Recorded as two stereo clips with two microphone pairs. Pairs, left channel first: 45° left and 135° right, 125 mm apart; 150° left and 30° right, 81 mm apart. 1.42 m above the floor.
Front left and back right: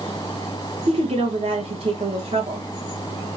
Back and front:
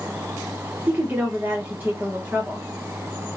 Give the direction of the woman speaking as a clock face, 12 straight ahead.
3 o'clock.